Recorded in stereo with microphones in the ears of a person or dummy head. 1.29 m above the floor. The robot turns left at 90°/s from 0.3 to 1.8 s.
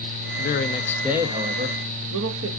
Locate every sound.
0.4 s a man speaking: 60° left, 0.9 m; by 2.5 s 70° right, 0.9 m